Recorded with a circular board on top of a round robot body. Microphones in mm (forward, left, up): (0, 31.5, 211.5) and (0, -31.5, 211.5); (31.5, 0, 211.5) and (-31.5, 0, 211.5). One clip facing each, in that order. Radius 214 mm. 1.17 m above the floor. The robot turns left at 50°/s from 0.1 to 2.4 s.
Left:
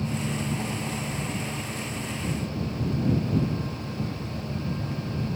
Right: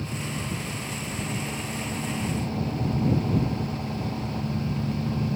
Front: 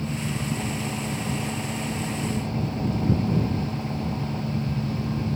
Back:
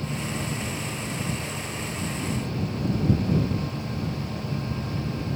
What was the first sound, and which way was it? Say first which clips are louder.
An engine running: left 3 dB, front 1 dB; 65° left.